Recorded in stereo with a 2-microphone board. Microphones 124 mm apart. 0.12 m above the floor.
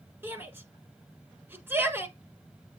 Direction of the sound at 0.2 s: 20° right (ahead or behind).